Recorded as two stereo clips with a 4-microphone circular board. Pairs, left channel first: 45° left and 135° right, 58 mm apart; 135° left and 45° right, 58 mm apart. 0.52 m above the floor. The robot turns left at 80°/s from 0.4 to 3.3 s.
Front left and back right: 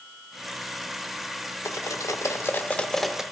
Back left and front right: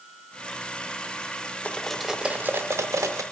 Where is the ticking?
No ticking in this recording.